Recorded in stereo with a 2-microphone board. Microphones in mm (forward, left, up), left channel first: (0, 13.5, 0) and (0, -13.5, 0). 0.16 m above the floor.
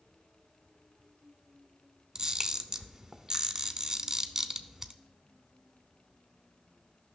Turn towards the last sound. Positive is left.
turn(degrees=-20)  # may be behind; listen again after turning